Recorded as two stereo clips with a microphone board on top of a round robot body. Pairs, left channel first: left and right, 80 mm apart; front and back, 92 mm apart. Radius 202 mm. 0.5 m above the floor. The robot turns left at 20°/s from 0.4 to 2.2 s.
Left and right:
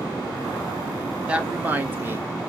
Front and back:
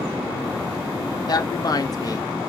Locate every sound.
1.3 s a woman speaking: 20° right, 0.9 m; by 2.3 s 35° right, 0.9 m